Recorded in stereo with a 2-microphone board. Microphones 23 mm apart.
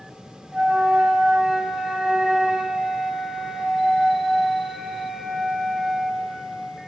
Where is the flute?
45° right (ahead or behind), 1.7 m.